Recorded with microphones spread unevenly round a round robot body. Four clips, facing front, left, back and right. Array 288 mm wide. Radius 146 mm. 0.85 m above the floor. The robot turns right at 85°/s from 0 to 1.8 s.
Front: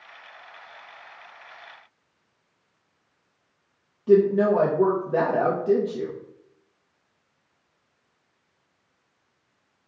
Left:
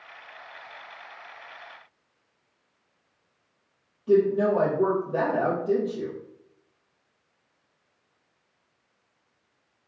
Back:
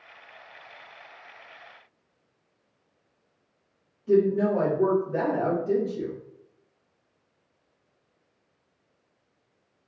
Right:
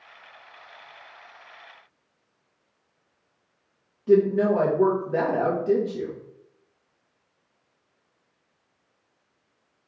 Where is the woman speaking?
15° right, 0.8 m.